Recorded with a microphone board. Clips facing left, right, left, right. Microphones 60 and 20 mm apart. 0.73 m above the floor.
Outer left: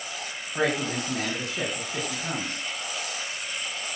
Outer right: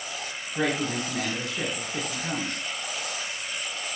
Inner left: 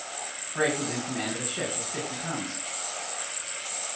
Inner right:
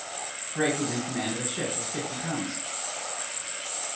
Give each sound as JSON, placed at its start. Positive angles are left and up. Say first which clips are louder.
{"t": 0.6, "sound": "a man speaking", "louder": "outer left 1 dB, even", "side_deg": 85, "distance_m": 8.5}